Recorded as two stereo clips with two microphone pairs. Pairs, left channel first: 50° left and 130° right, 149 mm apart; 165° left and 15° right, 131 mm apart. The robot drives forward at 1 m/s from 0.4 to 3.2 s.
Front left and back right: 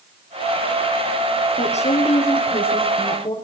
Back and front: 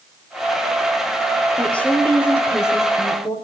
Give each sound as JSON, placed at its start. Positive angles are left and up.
{"t": 1.6, "sound": "a woman speaking", "azimuth_deg": 85, "distance_m": 5.0}